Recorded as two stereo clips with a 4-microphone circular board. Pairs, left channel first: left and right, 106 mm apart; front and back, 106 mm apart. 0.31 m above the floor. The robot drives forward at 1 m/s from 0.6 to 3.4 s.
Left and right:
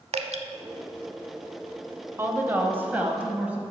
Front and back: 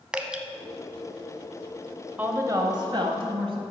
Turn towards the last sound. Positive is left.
turn(degrees=-165)